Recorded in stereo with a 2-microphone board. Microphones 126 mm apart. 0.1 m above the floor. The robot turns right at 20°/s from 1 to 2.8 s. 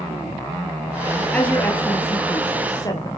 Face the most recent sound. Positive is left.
turn(degrees=30)  # may be behind; listen again after turning